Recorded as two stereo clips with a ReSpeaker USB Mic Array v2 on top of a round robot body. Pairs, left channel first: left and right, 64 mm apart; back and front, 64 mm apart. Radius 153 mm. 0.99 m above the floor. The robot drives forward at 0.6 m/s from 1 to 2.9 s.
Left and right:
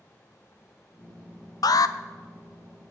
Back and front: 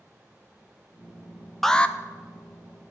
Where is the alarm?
95° left, 0.5 m; by 1.9 s 115° left, 0.5 m.